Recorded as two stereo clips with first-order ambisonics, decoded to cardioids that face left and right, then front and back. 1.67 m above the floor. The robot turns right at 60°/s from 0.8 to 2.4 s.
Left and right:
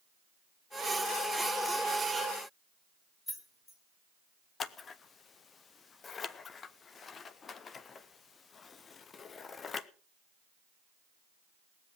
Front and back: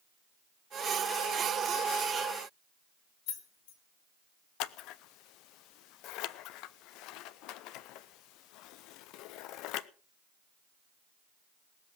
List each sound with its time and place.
3.3 s keys jangling: 15° left, 2.5 m
4.6 s scissors: 25° left, 0.6 m